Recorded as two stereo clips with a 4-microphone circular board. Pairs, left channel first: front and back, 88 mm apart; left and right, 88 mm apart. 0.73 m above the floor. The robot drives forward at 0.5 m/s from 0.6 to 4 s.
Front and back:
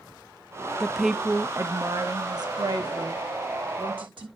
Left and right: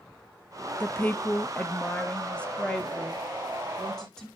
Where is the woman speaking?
70° left, 0.6 m; by 4.3 s 175° left, 1.6 m.